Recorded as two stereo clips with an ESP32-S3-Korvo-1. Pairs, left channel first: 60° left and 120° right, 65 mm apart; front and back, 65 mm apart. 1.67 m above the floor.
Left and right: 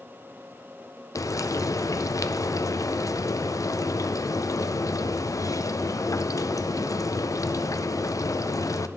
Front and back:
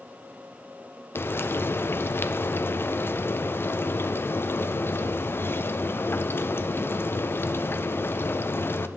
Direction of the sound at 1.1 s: 50° left.